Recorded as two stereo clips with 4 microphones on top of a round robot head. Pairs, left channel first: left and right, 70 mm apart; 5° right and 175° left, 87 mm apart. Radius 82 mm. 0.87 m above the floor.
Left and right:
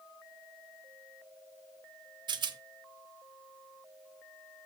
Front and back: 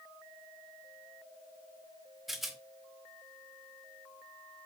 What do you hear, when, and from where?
2.3 s a rattle: 95° right, 0.8 m